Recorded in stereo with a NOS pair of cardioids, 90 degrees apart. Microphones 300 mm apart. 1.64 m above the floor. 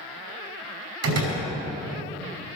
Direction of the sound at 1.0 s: 70° right.